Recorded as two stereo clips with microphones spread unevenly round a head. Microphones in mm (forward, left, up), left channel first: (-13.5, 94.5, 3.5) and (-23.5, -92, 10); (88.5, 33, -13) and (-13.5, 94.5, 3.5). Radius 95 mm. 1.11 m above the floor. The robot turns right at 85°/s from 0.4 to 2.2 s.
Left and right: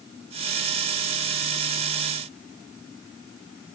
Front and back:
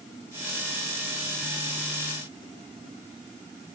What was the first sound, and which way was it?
Only background noise.